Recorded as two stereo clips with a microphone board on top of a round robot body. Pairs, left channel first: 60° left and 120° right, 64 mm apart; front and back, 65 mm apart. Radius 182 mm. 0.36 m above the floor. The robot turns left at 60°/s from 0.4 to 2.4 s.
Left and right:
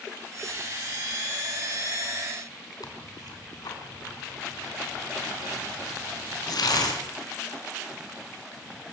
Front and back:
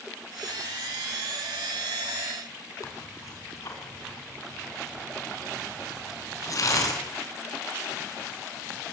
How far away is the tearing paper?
About 5 m.